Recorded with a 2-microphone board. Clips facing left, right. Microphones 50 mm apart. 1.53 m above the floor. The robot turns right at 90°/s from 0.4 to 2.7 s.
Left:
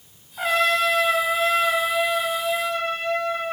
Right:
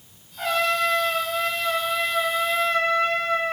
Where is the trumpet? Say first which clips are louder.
Left 2 dB; 35° left, 8 m; by 3.5 s 120° right, 8 m.